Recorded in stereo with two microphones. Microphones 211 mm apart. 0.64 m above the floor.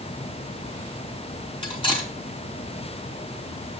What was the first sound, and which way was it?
Cutlery clinking, 25° left (ahead or behind).